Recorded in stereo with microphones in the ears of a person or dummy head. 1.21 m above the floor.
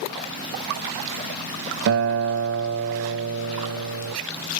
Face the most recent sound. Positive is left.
turn(degrees=-55)  # may be behind; listen again after turning